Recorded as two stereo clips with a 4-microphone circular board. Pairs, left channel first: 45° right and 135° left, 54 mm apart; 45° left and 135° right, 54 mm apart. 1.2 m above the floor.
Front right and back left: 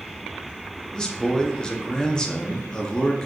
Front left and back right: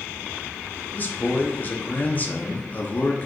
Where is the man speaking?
20° left, 0.6 m.